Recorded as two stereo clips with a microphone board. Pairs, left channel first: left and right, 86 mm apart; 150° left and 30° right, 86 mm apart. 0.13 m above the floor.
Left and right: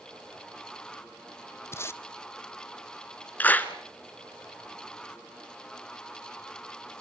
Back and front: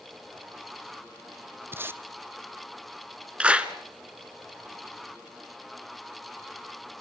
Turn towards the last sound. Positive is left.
turn(degrees=35)